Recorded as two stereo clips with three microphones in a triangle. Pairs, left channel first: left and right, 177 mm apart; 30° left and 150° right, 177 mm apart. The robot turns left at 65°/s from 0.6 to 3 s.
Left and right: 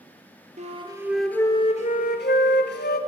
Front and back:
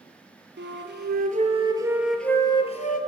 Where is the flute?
140° right, 0.6 m; by 3.0 s 65° left, 0.6 m.